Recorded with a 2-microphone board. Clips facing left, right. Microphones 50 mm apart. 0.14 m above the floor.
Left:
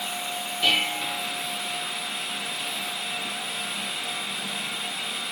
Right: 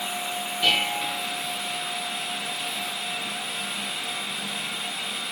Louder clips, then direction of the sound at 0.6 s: Even; 10° right (ahead or behind).